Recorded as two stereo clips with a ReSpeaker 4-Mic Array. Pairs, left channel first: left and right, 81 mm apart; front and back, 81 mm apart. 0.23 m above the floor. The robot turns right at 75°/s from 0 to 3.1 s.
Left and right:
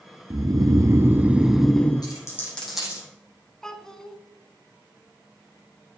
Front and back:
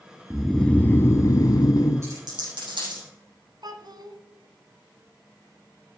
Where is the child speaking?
170° left, 1.5 m.